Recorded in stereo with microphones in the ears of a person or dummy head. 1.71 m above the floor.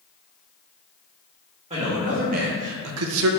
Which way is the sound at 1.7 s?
30° right (ahead or behind).